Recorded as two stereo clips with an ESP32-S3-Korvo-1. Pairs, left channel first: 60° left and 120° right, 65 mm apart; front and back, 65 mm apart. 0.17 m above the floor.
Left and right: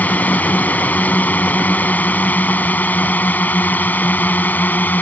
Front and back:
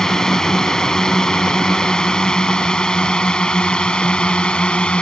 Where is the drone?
70° left; by 5.0 s 55° left.